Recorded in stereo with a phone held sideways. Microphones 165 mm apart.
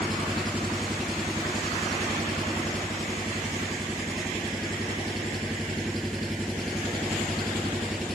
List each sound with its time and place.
0.0 s an engine running: centre (ahead or behind)